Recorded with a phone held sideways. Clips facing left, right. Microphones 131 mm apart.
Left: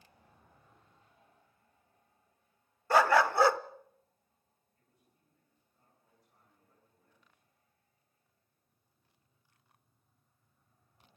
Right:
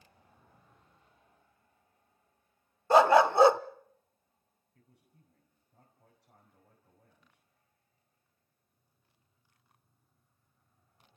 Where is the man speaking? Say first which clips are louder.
Right 8 dB; 70° right (ahead or behind), 6 m.